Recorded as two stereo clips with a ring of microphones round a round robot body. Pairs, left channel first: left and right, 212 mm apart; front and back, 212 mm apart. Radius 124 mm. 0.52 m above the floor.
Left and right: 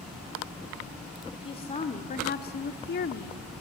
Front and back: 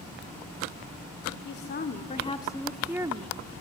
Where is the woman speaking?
25° left, 1.7 m; by 3.4 s 130° left, 1.2 m.